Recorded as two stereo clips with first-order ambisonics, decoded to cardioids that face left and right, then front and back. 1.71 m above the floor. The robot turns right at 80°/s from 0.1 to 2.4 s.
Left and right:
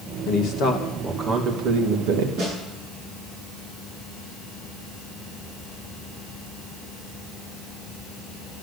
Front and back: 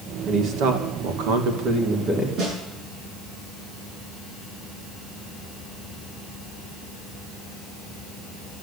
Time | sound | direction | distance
0.3 | a man speaking | 110° left | 2.5 m
2.4 | a snare drum | 130° right | 9 m